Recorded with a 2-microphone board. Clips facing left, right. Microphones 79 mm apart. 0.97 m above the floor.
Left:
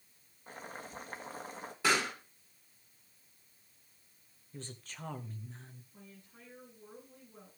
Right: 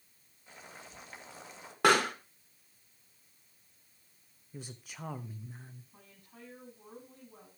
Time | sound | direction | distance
0.5 | boiling | 45° left (ahead or behind) | 1.8 m
1.8 | a pop | 60° right (ahead or behind) | 1.9 m
4.5 | a woman speaking | 10° right (ahead or behind) | 1.0 m
5.9 | a woman speaking | 60° right (ahead or behind) | 8 m